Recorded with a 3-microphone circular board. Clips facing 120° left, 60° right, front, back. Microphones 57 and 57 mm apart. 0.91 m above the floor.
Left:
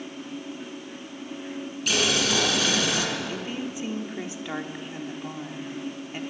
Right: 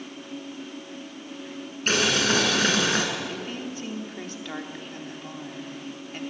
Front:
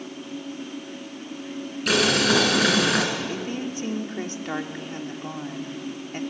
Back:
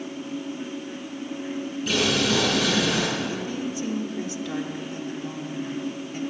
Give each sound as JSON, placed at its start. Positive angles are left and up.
{"t": 1.9, "sound": "boiling", "azimuth_deg": -10, "distance_m": 5.0}
{"t": 3.3, "sound": "a woman speaking", "azimuth_deg": 45, "distance_m": 2.5}